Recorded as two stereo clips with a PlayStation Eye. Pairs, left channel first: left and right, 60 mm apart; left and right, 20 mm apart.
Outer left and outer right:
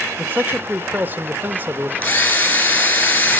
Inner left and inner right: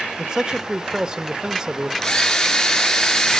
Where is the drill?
25° left (ahead or behind), 4 m.